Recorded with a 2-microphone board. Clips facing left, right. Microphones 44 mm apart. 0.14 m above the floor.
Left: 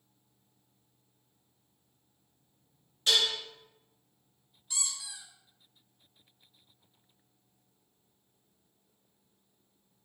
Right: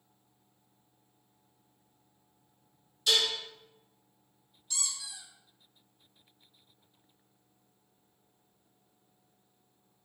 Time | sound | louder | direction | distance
3.1 | dishes clattering | left 1 dB | 35° left (ahead or behind) | 1.1 m
4.7 | a squeak | even | 20° left (ahead or behind) | 0.5 m